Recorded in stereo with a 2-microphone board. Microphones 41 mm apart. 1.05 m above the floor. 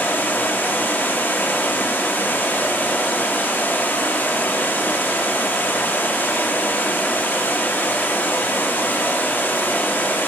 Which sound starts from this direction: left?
Running water, at 0.0 s.